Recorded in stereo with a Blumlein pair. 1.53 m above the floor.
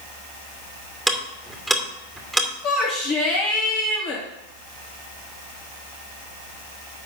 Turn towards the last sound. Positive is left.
turn(degrees=35)